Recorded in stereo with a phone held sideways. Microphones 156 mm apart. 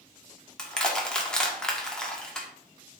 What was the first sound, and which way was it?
Crushing, 5° left (ahead or behind).